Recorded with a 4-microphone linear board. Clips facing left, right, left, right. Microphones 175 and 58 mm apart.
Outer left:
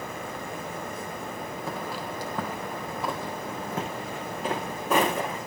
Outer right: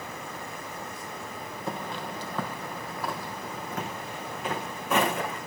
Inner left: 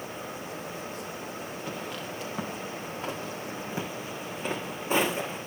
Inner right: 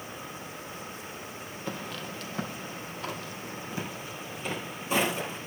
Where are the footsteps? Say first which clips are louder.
Outer right 1 dB, inner right 2 dB; centre (ahead or behind), 2.5 m; by 5.4 s 35° left (ahead or behind), 6.5 m.